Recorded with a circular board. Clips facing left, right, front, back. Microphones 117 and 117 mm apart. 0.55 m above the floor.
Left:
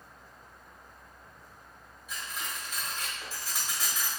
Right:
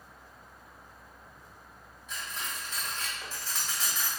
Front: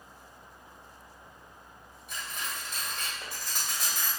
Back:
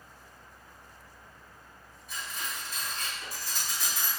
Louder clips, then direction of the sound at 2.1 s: Even, even; 10° left.